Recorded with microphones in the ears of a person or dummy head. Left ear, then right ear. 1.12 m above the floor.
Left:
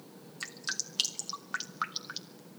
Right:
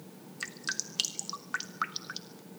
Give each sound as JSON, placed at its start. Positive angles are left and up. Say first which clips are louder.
{"t": 0.4, "sound": "dripping", "louder": "right 1 dB", "side_deg": 0, "distance_m": 0.7}